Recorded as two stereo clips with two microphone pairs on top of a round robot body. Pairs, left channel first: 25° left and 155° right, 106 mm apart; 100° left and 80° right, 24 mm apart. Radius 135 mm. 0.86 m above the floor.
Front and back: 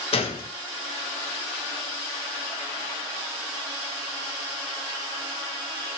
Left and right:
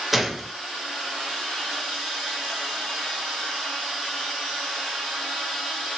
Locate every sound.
0.1 s a gunshot: 5° left, 0.7 m